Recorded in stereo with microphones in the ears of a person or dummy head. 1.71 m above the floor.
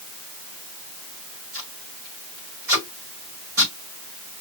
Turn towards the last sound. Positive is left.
turn(degrees=-55)  # may be behind; listen again after turning